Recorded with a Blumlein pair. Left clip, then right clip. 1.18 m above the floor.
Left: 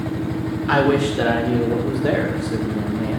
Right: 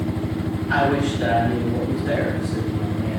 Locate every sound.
0.7 s a man speaking: 45° left, 2.5 m; by 3.2 s 75° left, 1.3 m